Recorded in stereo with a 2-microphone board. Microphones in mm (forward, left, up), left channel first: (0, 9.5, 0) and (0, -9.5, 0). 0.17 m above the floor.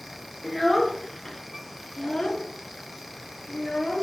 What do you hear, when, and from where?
0.4 s a child speaking: 5° left (ahead or behind), 1.6 m; by 4.0 s 65° left (ahead or behind), 1.9 m